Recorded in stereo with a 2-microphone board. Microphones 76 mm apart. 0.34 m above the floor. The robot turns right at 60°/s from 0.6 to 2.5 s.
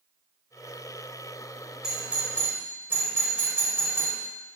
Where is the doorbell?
10° right (ahead or behind), 1.5 m; by 4.2 s 30° right (ahead or behind), 1.5 m.